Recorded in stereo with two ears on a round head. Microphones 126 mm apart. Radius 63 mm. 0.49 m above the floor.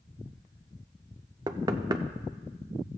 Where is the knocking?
25° right (ahead or behind), 0.5 m.